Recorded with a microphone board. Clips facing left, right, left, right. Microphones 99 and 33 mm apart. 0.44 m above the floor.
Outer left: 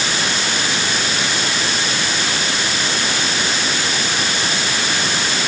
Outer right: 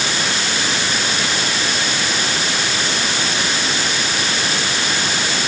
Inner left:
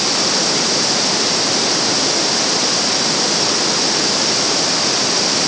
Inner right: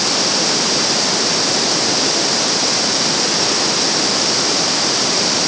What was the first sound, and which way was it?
Only background noise.